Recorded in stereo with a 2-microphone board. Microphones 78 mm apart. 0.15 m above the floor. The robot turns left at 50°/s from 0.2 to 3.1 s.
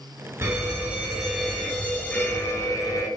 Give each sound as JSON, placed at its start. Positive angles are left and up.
{"t": 0.4, "sound": "a fire alarm", "azimuth_deg": -125, "distance_m": 2.5}